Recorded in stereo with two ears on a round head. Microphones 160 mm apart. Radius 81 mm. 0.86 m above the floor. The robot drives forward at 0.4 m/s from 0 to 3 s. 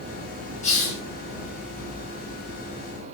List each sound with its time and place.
0.6 s a hiss: 40° left (ahead or behind), 1.4 m